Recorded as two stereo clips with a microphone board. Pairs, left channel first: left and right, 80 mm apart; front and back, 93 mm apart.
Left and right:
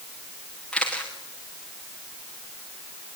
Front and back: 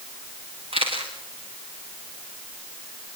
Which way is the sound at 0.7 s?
170° left.